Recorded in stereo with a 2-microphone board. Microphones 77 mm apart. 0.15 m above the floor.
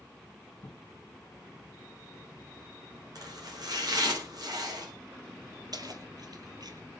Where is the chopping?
60° right (ahead or behind), 9.5 m.